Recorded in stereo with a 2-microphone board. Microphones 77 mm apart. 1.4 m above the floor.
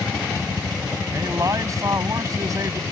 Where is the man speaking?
45° right (ahead or behind).